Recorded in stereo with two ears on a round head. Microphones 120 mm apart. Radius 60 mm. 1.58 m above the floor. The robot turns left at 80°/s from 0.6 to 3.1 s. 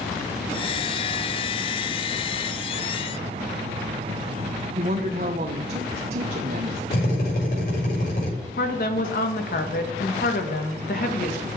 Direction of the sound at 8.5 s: 70° left (ahead or behind).